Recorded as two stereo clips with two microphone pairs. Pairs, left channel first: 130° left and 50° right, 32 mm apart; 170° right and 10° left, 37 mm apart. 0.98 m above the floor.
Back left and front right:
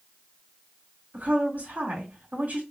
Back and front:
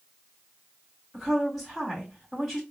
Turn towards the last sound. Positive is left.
turn(degrees=-85)